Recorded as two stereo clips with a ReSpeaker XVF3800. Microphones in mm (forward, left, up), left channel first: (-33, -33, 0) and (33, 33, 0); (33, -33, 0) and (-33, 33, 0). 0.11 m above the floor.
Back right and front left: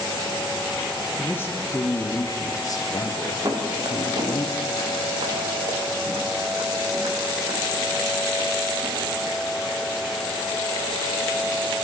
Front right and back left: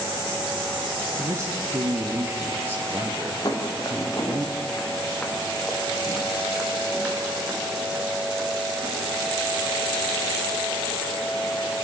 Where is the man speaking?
165° left, 2 m; by 4.5 s 155° right, 3.5 m.